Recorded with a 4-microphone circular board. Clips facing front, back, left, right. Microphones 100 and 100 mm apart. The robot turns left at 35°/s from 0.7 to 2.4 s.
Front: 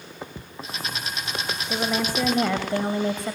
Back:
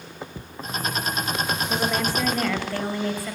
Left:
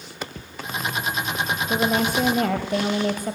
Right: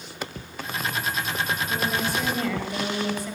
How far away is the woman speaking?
About 2.5 m.